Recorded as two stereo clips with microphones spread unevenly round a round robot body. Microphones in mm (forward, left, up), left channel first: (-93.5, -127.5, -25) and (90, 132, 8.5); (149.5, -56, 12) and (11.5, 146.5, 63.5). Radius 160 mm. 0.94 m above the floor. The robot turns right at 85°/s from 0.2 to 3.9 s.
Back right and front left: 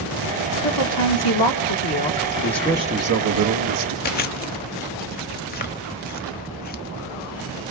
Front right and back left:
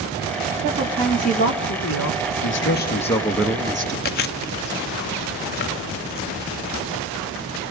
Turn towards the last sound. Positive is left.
turn(degrees=-75)